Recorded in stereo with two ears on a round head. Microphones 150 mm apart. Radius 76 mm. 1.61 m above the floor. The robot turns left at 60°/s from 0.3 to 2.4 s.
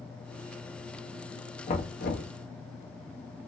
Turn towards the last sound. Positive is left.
turn(degrees=90)